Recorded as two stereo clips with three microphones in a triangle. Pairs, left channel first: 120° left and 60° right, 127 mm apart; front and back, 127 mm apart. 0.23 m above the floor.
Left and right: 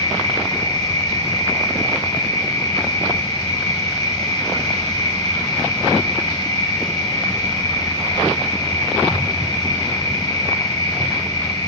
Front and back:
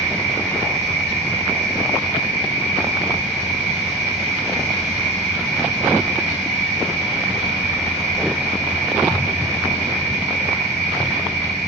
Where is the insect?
130° left, 2.5 m.